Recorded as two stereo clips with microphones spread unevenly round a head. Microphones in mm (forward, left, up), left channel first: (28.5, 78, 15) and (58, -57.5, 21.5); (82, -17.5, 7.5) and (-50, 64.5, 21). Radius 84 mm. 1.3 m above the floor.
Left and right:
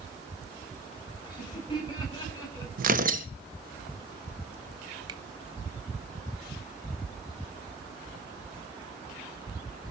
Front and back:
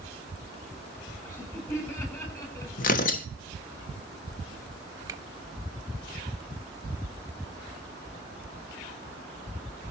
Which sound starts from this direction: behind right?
A finger snap, at 5.1 s.